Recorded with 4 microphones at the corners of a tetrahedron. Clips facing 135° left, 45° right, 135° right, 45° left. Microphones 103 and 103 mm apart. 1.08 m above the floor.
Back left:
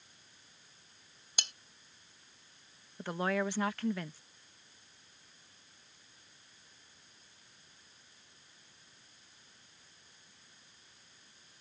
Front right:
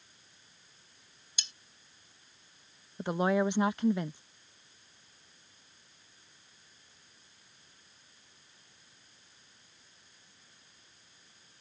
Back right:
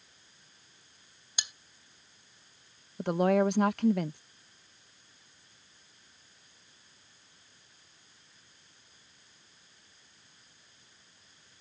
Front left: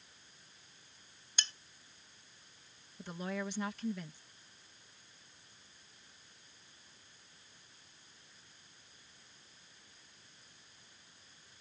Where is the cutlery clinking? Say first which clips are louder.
Back left 6 dB, even; 150° left.